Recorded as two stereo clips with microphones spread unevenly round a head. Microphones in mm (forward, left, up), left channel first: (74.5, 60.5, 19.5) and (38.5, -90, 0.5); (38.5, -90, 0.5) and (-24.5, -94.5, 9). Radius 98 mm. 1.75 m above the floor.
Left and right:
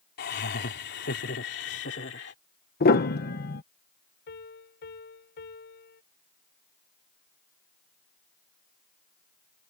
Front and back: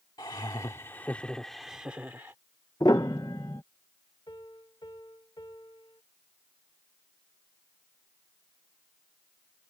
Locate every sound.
0.2 s laughter: 70° left; by 2.4 s 110° left
2.8 s a piano: 70° left
4.3 s a piano: 70° left